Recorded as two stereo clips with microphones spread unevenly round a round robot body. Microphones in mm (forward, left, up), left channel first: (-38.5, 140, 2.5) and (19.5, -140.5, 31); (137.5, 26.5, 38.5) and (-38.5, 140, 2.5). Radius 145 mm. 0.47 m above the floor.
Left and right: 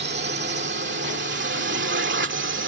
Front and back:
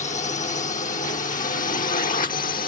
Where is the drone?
70° right; by 2.7 s 65° right.